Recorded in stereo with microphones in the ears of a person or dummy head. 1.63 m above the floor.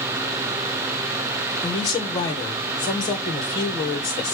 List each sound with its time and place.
1.6 s a woman speaking: 30° left (ahead or behind), 1.2 m